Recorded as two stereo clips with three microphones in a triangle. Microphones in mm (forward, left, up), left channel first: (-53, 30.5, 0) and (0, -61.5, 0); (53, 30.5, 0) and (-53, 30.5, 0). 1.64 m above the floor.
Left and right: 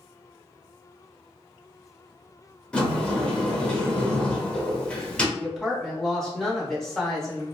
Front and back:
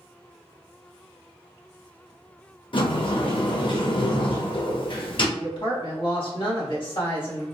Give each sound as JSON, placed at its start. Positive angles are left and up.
{"t": 2.7, "sound": "a sliding door", "azimuth_deg": 40, "distance_m": 0.6}
{"t": 5.4, "sound": "a woman speaking", "azimuth_deg": 35, "distance_m": 1.1}